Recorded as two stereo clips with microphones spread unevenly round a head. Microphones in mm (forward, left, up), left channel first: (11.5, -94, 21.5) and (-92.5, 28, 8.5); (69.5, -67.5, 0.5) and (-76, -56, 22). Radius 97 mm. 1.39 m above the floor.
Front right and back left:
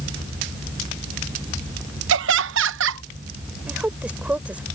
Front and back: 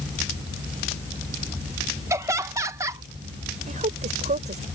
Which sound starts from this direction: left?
Laughter, at 2.1 s.